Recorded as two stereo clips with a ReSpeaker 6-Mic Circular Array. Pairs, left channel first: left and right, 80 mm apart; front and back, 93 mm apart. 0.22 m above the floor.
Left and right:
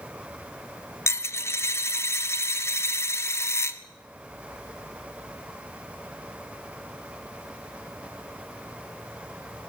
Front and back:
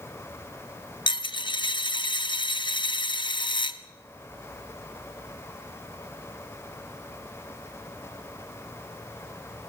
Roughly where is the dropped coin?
Ahead left.